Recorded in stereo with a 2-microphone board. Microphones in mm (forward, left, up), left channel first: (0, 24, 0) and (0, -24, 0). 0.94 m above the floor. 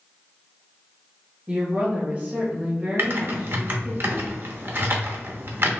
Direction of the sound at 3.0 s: 45° right (ahead or behind).